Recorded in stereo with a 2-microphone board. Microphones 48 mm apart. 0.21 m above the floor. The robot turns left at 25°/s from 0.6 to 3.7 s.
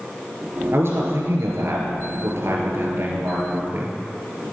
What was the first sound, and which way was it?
A man speaking, 60° right.